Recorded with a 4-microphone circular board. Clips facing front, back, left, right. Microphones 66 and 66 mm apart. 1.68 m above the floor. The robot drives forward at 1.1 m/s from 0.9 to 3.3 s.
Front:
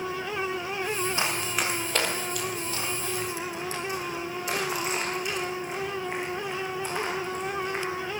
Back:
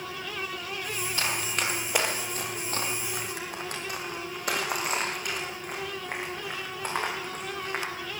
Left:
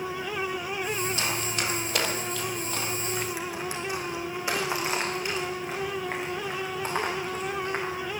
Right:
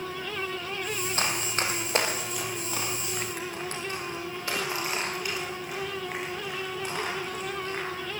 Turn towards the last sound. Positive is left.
turn(degrees=140)